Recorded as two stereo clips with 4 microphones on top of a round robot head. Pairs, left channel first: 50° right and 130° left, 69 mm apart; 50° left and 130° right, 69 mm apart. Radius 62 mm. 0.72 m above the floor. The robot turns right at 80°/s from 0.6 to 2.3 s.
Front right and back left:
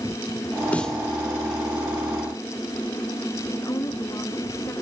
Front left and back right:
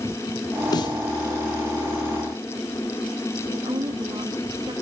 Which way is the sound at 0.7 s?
20° left.